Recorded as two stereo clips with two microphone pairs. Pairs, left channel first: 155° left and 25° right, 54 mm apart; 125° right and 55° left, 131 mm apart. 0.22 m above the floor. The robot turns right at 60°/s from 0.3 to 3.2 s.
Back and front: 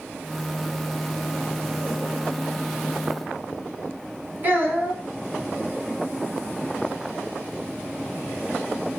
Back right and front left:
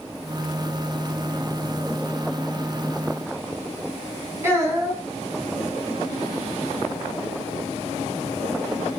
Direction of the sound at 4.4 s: 5° right.